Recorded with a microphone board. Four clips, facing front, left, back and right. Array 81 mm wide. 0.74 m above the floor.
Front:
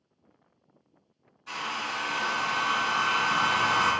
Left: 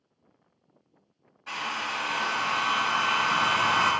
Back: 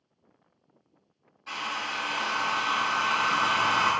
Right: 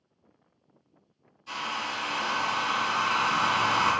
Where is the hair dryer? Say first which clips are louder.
Left 1 dB, even; 110° left, 1.6 m.